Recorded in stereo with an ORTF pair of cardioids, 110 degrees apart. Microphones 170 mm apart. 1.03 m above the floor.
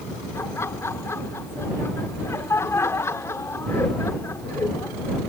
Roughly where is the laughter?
Ahead.